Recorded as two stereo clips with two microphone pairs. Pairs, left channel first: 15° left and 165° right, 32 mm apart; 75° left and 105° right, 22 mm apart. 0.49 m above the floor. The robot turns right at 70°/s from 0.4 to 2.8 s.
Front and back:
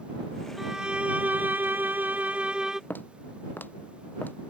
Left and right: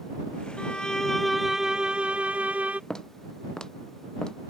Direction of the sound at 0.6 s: 110° left.